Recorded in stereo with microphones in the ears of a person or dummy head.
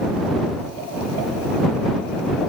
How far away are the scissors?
No scissors in this recording.